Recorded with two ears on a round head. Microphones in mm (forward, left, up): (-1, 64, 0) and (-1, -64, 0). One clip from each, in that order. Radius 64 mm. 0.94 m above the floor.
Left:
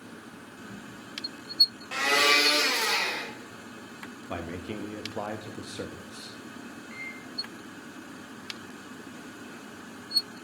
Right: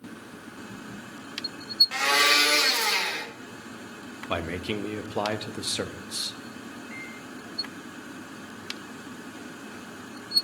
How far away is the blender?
About 1.4 m.